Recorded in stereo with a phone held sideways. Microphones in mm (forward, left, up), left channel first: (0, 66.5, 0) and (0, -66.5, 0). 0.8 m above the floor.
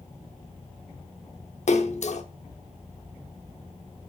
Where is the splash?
60° left (ahead or behind), 0.8 m.